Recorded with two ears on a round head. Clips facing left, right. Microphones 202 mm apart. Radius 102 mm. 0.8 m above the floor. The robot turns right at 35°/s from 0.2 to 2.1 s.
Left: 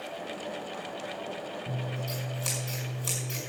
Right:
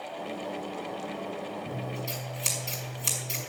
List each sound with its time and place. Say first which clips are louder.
1.7 s scissors: right 1 dB; 15° right (ahead or behind), 5.5 m; by 3.4 s 30° right (ahead or behind), 5.5 m